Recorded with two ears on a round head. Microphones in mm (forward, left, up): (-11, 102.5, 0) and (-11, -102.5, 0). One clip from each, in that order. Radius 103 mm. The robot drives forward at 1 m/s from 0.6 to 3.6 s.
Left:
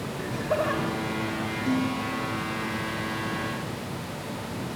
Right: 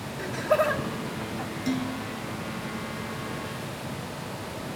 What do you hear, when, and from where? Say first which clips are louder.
0.2 s laughter: right 4 dB; 35° right (ahead or behind), 1.4 m; by 1.5 s 30° right (ahead or behind), 1.7 m
1.7 s dishes clattering: left 3 dB; 75° right (ahead or behind), 5.5 m; by 2.4 s 80° right, 5.5 m